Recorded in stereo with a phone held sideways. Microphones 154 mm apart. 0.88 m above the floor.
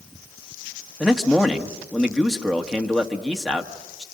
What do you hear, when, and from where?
1.0 s a man speaking: centre (ahead or behind), 1.6 m